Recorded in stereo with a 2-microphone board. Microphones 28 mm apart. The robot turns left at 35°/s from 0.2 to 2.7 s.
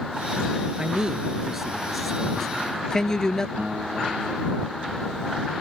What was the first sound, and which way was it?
A man speaking, 35° right (ahead or behind).